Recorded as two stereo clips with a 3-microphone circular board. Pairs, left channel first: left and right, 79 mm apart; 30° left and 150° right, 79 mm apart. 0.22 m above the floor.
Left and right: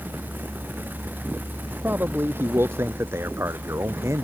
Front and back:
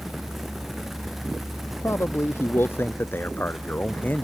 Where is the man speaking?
25° right; by 4.2 s 40° right.